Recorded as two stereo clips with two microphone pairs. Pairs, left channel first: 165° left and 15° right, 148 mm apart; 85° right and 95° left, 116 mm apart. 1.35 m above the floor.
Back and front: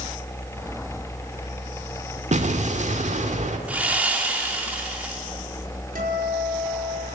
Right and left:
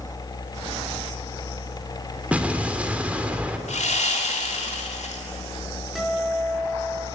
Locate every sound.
2.3 s an explosion: 15° left, 1.8 m
3.7 s sawing: 95° right, 2.5 m
6.0 s a guitar: 5° left, 5 m